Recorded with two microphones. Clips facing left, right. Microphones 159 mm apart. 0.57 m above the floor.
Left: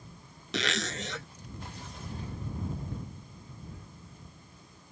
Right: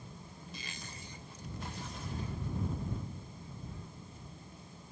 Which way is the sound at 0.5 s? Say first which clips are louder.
Left 19 dB; 75° left (ahead or behind).